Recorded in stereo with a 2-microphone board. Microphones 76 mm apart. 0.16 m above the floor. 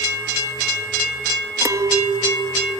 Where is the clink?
45° right (ahead or behind), 1.4 m.